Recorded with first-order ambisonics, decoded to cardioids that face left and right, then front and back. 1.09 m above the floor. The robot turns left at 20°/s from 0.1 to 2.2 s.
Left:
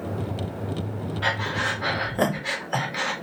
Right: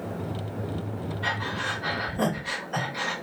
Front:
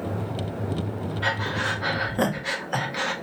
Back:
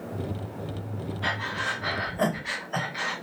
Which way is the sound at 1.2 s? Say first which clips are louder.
Left 4 dB, front 3 dB; 60° left.